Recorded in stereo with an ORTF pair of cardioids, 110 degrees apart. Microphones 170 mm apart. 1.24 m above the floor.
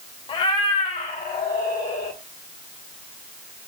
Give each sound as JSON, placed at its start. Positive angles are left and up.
{"t": 0.3, "sound": "a cat meowing", "azimuth_deg": 35, "distance_m": 1.4}